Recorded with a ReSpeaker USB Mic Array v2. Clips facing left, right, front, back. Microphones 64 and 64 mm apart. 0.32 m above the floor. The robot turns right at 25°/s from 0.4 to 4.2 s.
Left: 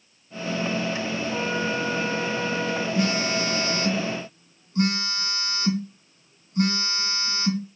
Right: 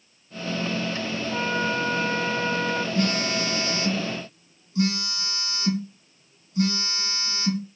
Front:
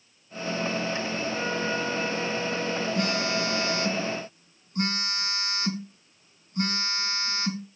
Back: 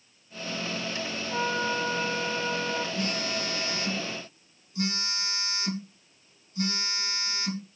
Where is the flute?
165° right, 3.5 m; by 2.9 s 130° right, 3.5 m.